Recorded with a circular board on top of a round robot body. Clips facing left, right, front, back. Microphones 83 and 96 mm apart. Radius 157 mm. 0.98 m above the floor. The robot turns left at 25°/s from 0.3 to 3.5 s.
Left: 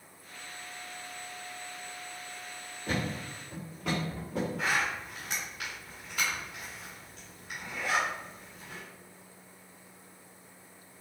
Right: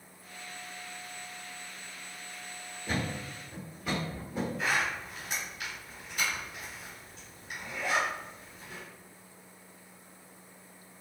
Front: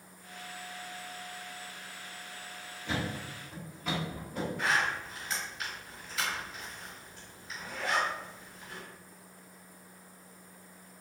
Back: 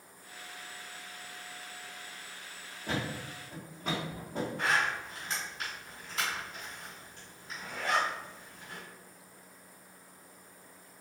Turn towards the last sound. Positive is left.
turn(degrees=115)